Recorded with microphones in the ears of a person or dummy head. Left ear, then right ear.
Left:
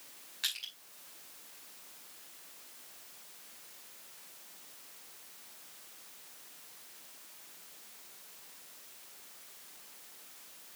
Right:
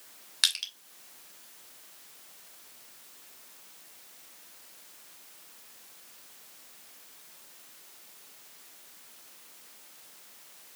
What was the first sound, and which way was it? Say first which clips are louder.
Crushing: right 9 dB; 50° right (ahead or behind).